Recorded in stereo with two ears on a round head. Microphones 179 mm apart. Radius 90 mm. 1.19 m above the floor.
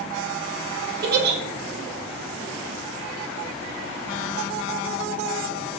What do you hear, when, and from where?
1.0 s a giggle: 50° right (ahead or behind), 0.7 m